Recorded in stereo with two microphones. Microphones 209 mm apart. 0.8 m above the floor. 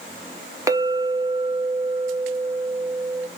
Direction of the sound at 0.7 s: 15° right (ahead or behind).